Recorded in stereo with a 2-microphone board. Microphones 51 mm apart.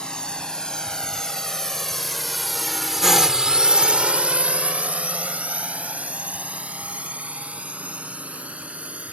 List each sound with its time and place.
0.0 s a drone: 15° left (ahead or behind); by 9.1 s 25° right (ahead or behind)